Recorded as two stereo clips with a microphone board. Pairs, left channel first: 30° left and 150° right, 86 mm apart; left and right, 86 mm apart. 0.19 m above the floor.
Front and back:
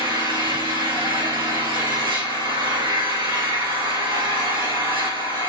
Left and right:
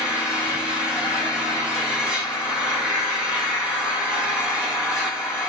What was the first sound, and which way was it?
An engine running, 170° right.